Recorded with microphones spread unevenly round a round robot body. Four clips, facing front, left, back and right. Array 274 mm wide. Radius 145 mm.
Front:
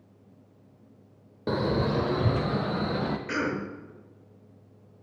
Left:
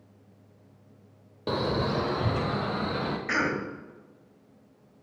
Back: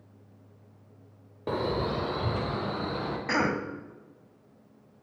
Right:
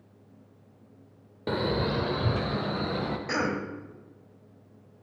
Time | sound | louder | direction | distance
1.5 | a man speaking | even, front 3 dB | straight ahead | 0.9 m
3.3 | a cough | left 1 dB, back 2 dB | 175° right | 2.5 m